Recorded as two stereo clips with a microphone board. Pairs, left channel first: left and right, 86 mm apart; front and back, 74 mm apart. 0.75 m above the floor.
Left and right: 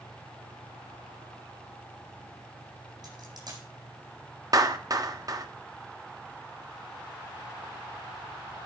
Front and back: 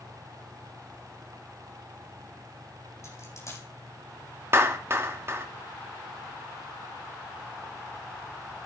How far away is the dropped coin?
About 8 m.